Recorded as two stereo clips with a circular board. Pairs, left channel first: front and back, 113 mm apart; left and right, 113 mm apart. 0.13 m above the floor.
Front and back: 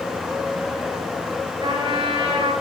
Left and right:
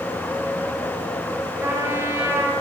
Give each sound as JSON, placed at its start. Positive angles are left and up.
{"t": 1.6, "sound": "a trumpet", "azimuth_deg": -155, "distance_m": 2.5}